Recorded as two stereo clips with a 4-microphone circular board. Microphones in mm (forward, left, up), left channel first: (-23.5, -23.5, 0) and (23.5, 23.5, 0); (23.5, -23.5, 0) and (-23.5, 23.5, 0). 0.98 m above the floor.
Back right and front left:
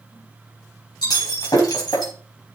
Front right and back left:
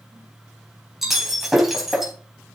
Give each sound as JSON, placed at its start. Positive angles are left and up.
{"t": 1.0, "sound": "breaking glass", "azimuth_deg": -135, "distance_m": 4.0}